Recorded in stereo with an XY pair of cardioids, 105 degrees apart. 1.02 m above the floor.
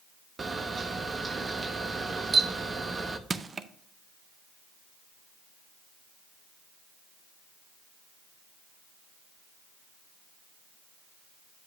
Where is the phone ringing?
No phone ringing in this recording.